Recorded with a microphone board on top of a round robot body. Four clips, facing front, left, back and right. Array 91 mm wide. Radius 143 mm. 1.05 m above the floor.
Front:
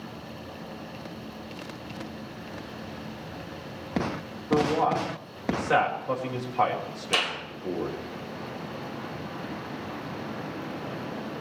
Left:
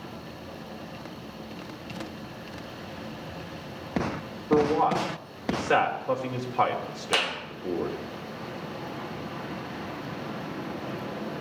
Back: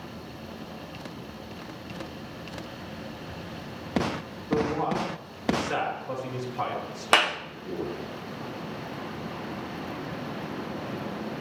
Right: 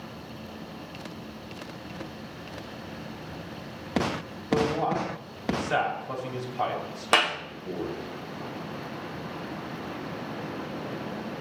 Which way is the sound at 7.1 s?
155° right.